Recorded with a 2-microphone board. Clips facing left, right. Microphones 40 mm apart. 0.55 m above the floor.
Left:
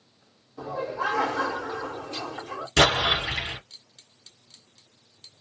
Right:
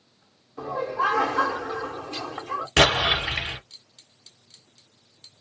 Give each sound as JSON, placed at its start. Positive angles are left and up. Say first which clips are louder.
{"t": 0.6, "sound": "laughter", "louder": "right 4 dB", "side_deg": -45, "distance_m": 1.7}
{"t": 2.8, "sound": "an explosion", "louder": "right 1 dB", "side_deg": -55, "distance_m": 1.8}